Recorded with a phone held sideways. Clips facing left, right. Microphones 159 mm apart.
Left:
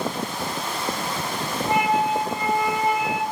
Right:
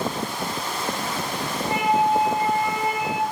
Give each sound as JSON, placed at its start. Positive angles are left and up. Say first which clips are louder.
{"t": 1.7, "sound": "a flute", "louder": "right 1 dB", "side_deg": 50, "distance_m": 6.0}